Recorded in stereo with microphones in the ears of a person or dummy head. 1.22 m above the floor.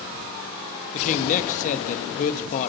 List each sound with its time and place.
0.9 s a man speaking: 45° left (ahead or behind), 1.3 m